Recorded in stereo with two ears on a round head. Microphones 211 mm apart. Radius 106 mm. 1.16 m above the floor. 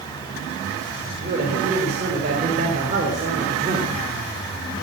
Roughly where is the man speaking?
Right.